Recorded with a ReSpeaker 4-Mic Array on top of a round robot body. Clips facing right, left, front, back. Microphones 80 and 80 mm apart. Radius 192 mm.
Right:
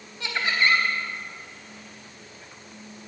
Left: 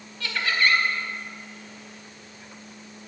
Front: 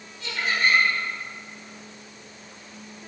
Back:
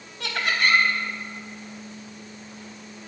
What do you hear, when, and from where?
0.2 s laughter: 160° right, 3.5 m